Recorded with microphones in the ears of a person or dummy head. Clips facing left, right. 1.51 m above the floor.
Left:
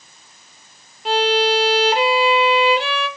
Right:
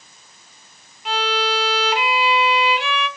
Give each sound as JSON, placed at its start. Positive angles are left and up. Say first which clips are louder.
{"t": 1.1, "sound": "a violin", "louder": "left 6 dB", "side_deg": 25, "distance_m": 1.0}